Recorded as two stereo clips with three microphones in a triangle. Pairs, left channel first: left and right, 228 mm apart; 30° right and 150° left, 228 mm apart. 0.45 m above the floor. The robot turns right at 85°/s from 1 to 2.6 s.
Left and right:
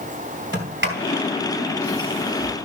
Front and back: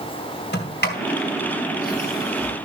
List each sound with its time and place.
0.5 s a sliding door: 65° right, 3 m; by 2.5 s 65° left, 3 m